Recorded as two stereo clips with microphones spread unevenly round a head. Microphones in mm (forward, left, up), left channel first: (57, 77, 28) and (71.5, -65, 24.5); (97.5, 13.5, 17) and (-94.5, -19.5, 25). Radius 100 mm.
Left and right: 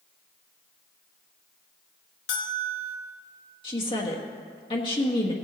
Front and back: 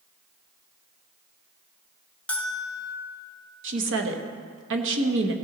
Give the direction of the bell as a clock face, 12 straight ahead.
9 o'clock.